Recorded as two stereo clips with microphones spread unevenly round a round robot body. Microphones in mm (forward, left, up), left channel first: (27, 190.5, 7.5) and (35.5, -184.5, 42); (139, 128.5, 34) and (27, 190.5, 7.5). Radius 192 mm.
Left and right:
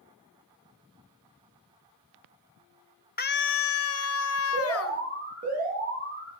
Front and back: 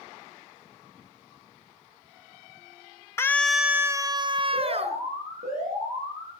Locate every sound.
3.2 s a scream: 50° left, 0.9 m; by 5.0 s 140° left, 1.6 m
4.5 s an alarm: 160° right, 9.5 m